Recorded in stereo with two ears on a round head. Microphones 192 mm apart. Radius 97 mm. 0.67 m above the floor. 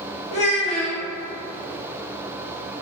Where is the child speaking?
30° left (ahead or behind), 0.6 m.